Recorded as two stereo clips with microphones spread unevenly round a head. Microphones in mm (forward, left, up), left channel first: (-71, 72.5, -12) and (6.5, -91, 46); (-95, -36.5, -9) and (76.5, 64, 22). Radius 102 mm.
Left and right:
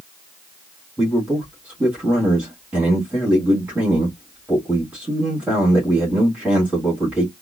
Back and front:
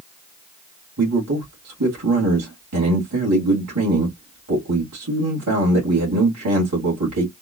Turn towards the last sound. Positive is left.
turn(degrees=15)